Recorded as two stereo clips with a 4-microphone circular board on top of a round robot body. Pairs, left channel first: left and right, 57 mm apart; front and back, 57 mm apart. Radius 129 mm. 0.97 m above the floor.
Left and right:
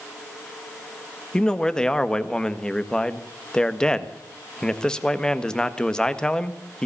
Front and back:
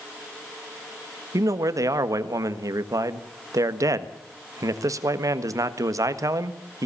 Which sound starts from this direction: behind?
A man speaking, at 1.3 s.